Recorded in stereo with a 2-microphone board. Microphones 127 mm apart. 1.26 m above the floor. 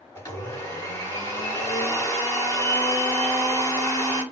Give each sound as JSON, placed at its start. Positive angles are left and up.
{"t": 0.1, "sound": "a blender", "side_deg": 20, "distance_m": 2.5}